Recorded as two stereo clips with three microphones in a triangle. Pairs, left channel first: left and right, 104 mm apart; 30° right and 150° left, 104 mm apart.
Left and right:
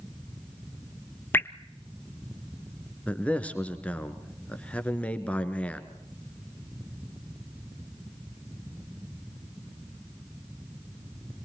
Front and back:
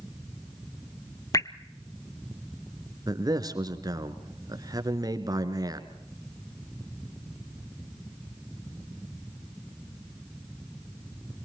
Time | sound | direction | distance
1.3 | dripping | 20° left | 0.8 m
3.1 | a man speaking | 160° left | 1.9 m